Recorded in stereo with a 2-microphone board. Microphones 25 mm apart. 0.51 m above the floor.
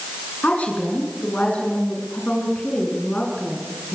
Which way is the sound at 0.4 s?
70° left (ahead or behind).